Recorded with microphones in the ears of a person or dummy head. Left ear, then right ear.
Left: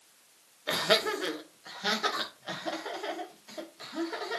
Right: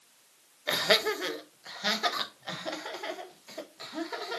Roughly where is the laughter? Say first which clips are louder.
Right 1 dB; right.